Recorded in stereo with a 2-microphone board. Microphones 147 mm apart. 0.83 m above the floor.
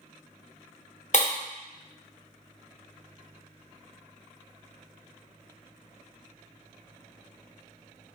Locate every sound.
1.1 s breaking glass: 55° left (ahead or behind), 0.7 m